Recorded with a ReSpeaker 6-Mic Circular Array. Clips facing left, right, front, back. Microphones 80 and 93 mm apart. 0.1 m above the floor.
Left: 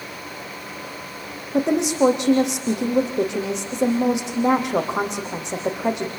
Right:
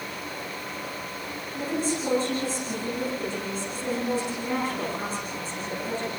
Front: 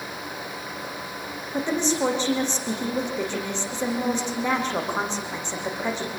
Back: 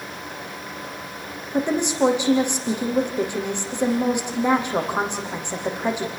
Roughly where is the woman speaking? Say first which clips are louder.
Left 10 dB, back 3 dB; left.